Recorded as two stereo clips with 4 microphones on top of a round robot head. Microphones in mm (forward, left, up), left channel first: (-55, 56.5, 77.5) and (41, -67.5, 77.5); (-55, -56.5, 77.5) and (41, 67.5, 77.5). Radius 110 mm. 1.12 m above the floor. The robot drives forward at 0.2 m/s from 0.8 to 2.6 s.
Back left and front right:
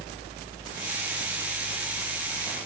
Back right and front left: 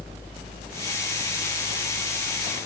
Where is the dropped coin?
I don't hear a dropped coin.